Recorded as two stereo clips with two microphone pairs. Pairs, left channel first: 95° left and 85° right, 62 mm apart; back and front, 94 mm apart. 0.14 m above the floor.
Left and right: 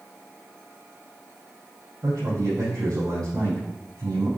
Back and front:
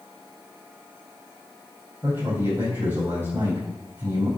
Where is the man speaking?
65° right, 3.5 m.